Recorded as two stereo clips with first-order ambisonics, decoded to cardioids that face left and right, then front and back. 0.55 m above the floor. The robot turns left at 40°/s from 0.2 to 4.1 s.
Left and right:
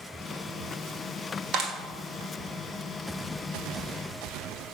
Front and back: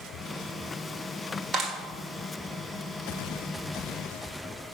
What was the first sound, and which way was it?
A clap, 120° right.